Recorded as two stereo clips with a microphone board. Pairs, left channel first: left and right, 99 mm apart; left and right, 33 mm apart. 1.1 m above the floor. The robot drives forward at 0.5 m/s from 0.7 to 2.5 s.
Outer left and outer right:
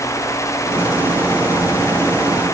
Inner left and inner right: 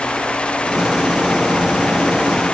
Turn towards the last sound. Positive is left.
No sound to turn to.